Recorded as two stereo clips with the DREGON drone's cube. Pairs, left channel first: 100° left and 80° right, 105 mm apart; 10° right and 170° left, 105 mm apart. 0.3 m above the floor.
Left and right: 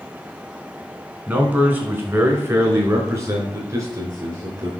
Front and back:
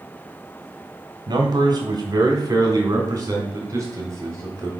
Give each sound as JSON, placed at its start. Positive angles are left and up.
{"t": 1.3, "sound": "a man speaking", "azimuth_deg": -150, "distance_m": 2.5}